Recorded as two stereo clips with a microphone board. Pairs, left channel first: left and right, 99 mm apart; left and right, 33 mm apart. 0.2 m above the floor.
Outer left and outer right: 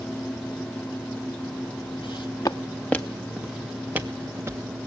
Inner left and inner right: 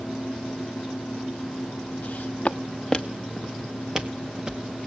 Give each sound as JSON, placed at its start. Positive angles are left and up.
{"t": 2.0, "sound": "footsteps", "side_deg": 55, "distance_m": 1.4}